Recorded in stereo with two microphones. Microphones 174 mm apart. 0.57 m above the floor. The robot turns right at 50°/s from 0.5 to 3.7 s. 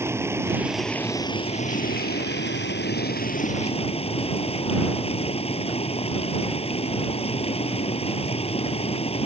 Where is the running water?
15° right; by 9.2 s 145° left.